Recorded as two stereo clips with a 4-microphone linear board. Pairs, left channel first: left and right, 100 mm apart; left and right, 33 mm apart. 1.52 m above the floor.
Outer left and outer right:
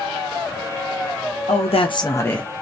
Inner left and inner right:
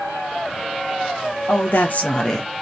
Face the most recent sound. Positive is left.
turn(degrees=5)  # may be behind; listen again after turning